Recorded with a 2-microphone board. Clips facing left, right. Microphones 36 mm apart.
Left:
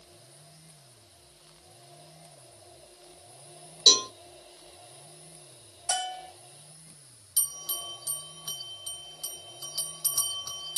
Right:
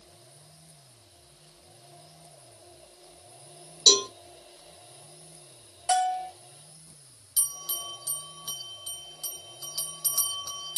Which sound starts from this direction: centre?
A bell, at 7.4 s.